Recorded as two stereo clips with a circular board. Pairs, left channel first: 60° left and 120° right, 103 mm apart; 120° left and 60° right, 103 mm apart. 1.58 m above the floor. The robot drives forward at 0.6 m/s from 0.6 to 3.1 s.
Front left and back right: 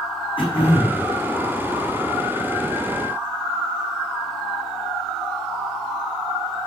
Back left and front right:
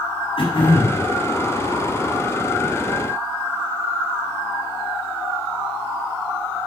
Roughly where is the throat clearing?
Left.